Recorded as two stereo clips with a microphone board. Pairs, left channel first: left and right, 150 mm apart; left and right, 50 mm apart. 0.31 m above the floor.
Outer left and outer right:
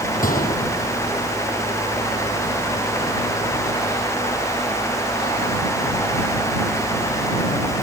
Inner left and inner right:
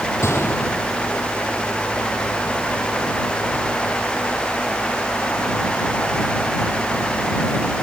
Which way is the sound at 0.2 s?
65° left (ahead or behind).